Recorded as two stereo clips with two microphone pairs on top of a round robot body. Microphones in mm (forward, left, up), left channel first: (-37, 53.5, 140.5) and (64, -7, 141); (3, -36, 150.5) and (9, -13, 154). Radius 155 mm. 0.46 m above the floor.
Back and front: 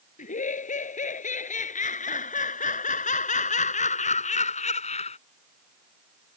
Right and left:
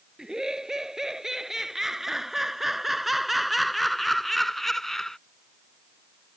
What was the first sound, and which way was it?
Laughter, 145° left.